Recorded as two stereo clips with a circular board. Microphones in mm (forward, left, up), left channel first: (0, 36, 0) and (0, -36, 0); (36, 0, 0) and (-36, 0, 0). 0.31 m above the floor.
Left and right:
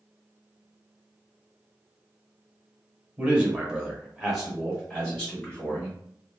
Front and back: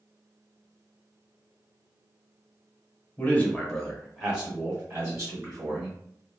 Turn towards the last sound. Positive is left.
turn(degrees=165)